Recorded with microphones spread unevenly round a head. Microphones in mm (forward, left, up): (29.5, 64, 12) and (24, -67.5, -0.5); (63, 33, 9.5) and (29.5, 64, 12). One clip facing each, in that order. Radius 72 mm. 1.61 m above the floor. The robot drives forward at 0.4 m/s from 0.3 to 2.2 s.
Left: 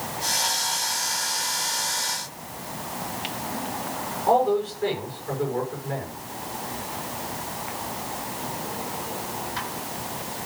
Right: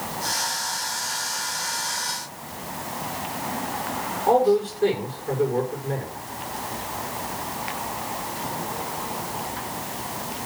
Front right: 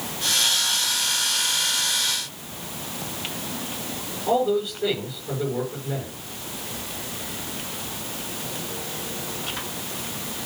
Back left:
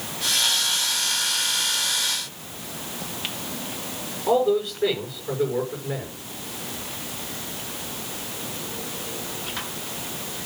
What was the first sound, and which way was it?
A man speaking, 145° right.